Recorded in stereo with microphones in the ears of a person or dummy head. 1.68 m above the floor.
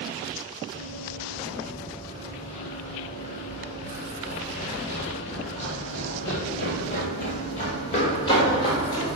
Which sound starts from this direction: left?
Running footsteps, at 0.7 s.